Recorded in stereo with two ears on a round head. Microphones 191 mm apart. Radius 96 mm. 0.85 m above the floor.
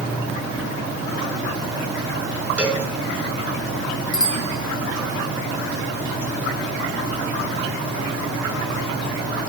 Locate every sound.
2.6 s a cowbell: 5° right (ahead or behind), 7 m
4.1 s a bicycle bell: 20° left (ahead or behind), 5.5 m